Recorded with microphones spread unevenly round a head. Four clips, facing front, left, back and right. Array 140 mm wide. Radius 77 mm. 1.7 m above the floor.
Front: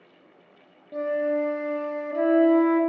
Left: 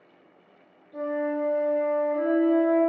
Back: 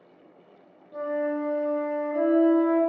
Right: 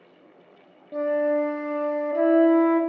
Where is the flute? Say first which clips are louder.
Right 5 dB, front 3 dB; 65° right, 0.5 m.